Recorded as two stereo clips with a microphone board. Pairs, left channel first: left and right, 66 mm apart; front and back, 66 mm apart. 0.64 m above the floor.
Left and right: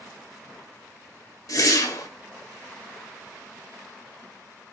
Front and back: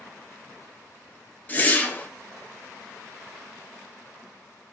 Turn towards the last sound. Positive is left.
turn(degrees=60)